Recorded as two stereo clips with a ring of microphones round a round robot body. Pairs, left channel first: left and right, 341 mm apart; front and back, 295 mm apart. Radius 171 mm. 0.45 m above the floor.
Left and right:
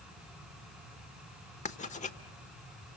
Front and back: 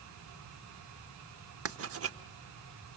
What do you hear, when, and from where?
1.6 s writing: 155° left, 0.9 m